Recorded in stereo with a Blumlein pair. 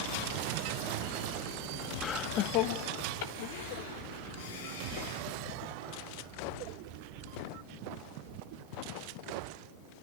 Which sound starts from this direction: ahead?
Laughter, at 2.0 s.